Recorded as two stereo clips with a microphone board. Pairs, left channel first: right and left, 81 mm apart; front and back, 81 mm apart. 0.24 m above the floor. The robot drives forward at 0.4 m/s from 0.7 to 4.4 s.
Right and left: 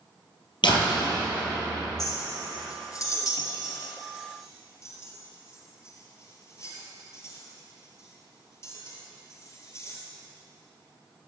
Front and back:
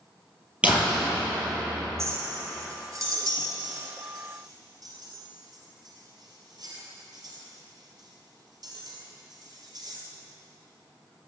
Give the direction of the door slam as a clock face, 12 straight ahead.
4 o'clock.